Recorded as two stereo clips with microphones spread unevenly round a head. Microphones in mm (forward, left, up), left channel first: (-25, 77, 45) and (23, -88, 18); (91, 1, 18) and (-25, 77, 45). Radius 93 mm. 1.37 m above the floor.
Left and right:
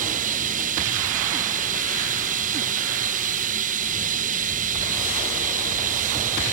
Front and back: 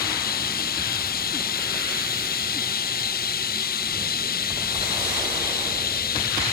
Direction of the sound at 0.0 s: 25° right.